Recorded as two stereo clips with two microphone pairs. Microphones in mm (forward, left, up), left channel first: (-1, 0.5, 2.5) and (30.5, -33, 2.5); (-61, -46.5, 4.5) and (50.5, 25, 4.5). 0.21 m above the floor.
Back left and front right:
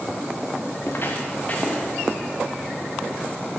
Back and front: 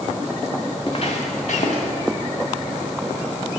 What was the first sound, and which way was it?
Footsteps, 165° left.